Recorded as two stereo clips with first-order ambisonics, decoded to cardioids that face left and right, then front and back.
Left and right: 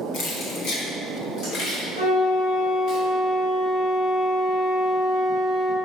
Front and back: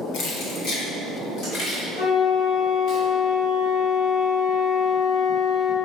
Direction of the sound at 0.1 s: 40° left.